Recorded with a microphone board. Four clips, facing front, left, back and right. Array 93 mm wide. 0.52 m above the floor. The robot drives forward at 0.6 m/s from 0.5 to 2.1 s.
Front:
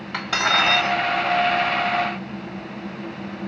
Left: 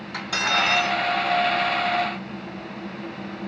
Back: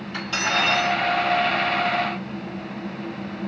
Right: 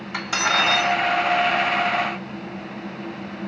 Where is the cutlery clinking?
20° right, 1.8 m; by 0.9 s 25° right, 1.5 m.